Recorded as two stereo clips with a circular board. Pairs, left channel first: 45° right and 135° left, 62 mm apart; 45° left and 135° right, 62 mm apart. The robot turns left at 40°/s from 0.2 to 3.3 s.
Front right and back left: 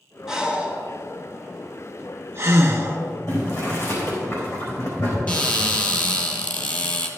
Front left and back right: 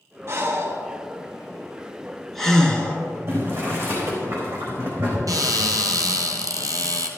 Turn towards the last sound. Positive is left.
turn(degrees=-110)